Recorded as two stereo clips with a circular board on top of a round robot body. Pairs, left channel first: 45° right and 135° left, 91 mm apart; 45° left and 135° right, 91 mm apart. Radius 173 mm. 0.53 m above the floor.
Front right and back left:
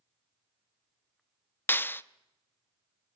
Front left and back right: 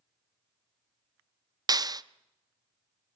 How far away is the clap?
About 1.2 m.